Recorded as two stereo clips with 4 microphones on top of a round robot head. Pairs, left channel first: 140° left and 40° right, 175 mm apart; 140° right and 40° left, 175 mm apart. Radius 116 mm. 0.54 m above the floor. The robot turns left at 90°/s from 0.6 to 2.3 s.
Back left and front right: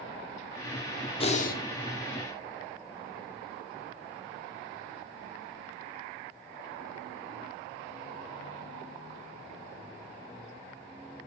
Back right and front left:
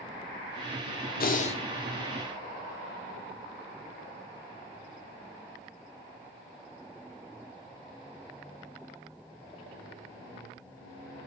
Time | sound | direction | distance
1.2 | breathing | 160° right | 2 m